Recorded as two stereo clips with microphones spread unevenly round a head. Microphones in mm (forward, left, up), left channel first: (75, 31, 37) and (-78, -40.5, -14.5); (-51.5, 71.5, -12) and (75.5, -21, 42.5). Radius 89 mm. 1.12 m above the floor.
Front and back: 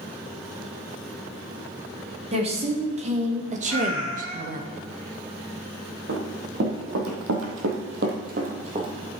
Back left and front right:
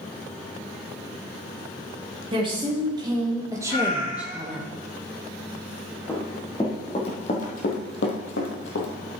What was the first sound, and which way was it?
A woman speaking, 100° right.